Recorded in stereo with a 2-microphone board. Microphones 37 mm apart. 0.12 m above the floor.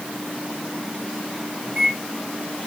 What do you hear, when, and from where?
1.7 s a microwave: 10° right (ahead or behind), 7 m